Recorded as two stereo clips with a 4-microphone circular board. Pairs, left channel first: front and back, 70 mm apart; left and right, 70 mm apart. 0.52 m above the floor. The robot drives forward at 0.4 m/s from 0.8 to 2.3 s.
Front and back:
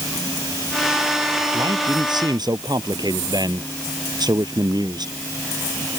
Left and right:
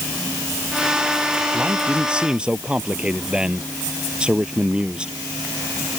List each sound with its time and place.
1.5 s a man speaking: 165° right